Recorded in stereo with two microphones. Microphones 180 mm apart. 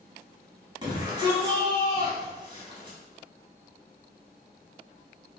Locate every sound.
0.8 s a shout: 30° right (ahead or behind), 1.1 m